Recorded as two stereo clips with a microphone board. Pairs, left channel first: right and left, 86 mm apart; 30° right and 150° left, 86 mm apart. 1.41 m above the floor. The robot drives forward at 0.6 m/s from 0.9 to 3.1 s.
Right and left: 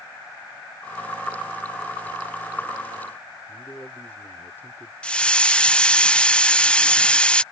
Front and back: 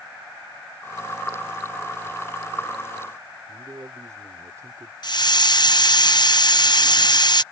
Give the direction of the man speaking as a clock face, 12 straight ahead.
5 o'clock.